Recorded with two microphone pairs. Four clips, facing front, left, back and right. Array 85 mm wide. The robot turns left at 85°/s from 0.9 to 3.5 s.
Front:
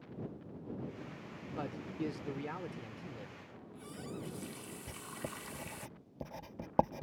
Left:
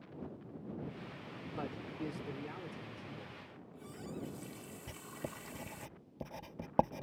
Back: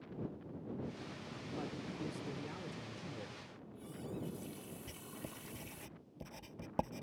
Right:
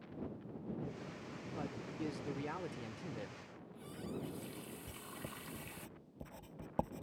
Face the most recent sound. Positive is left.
turn(degrees=45)